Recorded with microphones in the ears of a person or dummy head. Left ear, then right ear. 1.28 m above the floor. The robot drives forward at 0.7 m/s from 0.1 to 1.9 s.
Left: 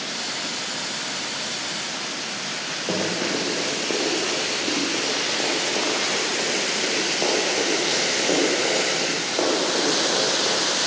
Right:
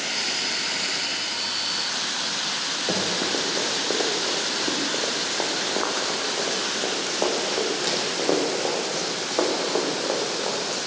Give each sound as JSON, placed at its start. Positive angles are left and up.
{"t": 2.9, "sound": "running footsteps", "side_deg": -10, "distance_m": 4.0}